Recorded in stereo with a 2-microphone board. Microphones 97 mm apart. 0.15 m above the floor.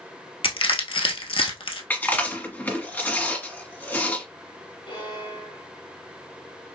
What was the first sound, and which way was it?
Crushing, 70° left (ahead or behind).